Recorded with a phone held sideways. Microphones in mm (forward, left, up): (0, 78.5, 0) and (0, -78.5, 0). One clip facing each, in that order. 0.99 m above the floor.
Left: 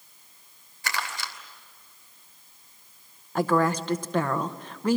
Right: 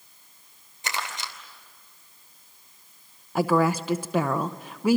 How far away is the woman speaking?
About 0.8 m.